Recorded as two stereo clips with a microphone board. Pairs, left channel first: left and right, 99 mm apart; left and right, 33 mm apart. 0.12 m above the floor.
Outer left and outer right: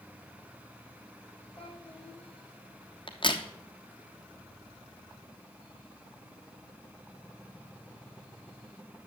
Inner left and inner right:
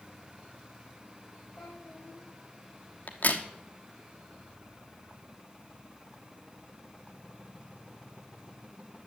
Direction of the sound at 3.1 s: 55° left (ahead or behind).